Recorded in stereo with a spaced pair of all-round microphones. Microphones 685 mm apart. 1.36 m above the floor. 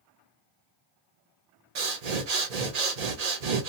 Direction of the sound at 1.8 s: 65° right (ahead or behind).